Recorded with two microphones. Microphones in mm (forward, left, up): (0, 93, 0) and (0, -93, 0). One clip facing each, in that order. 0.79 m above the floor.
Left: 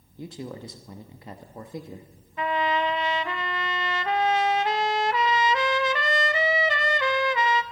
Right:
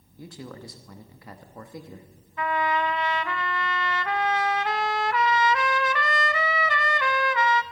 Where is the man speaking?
20° left (ahead or behind), 0.9 m.